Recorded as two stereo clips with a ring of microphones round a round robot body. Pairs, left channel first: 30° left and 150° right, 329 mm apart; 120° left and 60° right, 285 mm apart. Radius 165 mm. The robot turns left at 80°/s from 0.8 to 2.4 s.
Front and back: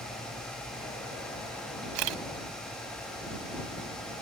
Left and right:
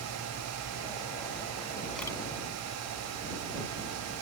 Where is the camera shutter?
150° right; by 2.2 s 170° right.